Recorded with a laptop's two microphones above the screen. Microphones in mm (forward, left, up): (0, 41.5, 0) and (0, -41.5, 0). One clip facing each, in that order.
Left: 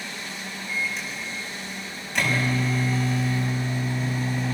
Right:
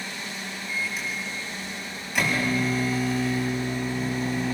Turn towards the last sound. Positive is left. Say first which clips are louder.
# left 1 dB
turn(degrees=-5)  # may be behind; listen again after turning